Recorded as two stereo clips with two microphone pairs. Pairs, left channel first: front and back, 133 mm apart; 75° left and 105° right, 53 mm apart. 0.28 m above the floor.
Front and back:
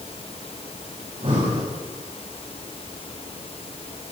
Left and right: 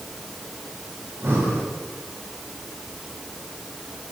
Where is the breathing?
140° right, 7.5 m.